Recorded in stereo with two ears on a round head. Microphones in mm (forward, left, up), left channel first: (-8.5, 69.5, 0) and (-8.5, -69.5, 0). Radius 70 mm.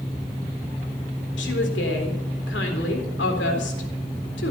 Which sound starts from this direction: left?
A woman speaking, at 1.4 s.